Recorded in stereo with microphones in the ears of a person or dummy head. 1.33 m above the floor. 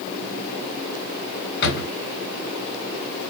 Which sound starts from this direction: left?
A drawer, at 1.6 s.